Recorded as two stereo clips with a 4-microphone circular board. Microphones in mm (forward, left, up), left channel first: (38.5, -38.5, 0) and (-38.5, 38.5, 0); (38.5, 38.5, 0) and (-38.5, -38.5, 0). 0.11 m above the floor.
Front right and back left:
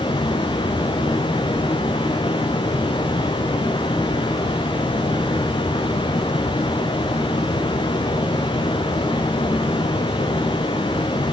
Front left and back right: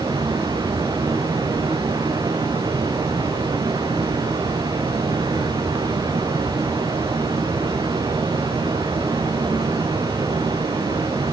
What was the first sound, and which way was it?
Running water, 85° right.